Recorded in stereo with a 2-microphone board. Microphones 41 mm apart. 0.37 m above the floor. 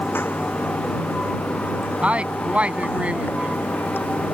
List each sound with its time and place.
0.0 s running water: 85° left
2.0 s a woman speaking: 35° right (ahead or behind)